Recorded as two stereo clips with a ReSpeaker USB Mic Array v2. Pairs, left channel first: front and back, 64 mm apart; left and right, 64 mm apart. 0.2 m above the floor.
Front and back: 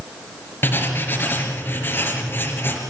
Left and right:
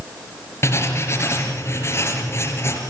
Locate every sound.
0.6 s writing: 50° left, 4 m